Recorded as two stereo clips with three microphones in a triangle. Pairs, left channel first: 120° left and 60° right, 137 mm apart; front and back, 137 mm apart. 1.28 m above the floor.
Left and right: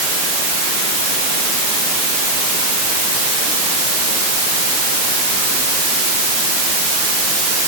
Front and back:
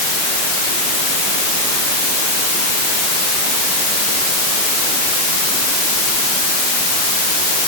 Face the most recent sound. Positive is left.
No sound to turn to.